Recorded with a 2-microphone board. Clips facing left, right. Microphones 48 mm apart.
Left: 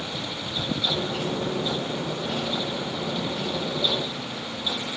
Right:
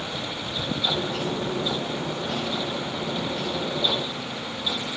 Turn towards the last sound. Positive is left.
turn(degrees=10)  # may be behind; listen again after turning